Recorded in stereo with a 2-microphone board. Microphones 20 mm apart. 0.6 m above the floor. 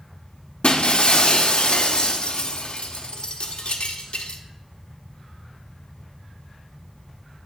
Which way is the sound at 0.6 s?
65° left (ahead or behind).